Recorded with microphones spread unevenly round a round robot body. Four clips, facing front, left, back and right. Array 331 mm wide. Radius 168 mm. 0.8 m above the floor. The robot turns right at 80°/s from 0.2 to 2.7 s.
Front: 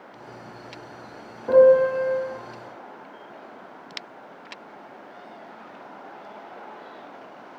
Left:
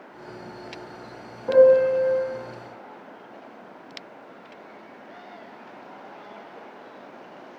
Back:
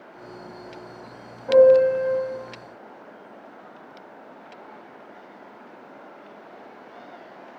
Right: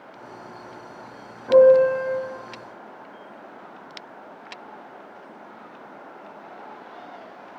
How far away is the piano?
About 0.9 m.